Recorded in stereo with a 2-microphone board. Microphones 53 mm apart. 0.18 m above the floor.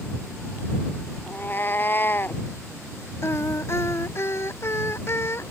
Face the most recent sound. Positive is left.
turn(degrees=55)  # may be behind; listen again after turning